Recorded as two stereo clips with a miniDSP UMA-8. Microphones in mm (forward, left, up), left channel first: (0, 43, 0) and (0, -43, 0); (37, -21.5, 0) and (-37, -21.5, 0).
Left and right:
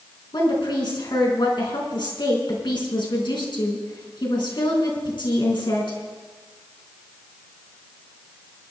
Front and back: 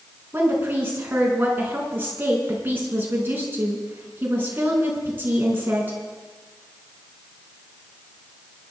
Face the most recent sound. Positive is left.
turn(degrees=120)